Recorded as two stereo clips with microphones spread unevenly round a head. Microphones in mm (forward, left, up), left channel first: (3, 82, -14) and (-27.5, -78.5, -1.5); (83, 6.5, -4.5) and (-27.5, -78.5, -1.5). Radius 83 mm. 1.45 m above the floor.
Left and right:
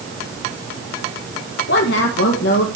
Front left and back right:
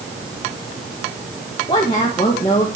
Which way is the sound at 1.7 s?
105° left.